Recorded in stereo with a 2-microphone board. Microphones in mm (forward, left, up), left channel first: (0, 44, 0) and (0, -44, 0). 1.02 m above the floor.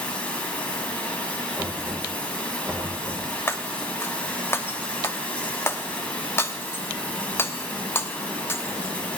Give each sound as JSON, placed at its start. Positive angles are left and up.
{"t": 0.0, "sound": "running water", "side_deg": 15, "distance_m": 2.5}
{"t": 1.6, "sound": "knocking", "side_deg": -25, "distance_m": 3.5}
{"t": 3.5, "sound": "breaking glass", "side_deg": 25, "distance_m": 0.8}